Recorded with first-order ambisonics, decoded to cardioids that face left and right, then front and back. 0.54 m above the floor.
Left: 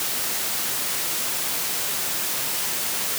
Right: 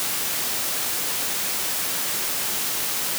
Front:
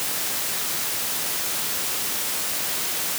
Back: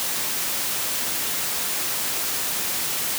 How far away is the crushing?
I don't hear crushing.